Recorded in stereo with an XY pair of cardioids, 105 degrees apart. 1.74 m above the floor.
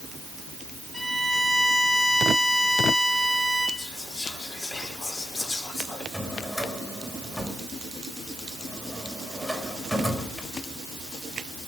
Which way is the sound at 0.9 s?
10° left.